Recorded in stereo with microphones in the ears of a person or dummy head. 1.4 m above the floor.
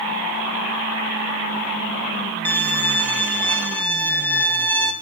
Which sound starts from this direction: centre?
A violin, at 2.5 s.